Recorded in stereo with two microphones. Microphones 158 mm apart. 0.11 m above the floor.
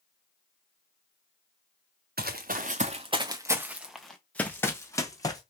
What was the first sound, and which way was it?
Running footsteps, 70° right (ahead or behind).